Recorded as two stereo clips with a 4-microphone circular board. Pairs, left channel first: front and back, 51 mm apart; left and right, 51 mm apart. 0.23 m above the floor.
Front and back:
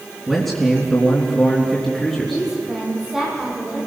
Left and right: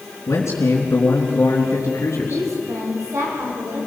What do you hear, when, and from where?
0.3 s a man speaking: 85° left, 3.5 m
2.3 s a woman speaking: 100° right, 8.5 m